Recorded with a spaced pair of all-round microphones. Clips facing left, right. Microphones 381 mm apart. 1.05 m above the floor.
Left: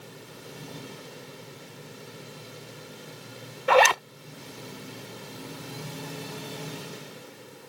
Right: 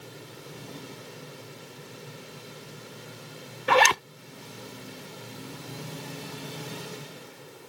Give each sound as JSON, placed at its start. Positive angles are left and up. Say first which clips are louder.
{"t": 3.7, "sound": "a zipper", "louder": "left 3 dB", "side_deg": -25}